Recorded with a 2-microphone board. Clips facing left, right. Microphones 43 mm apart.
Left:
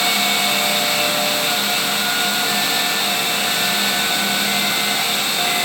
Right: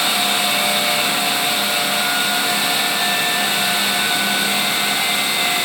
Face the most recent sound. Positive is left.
No sound to turn to.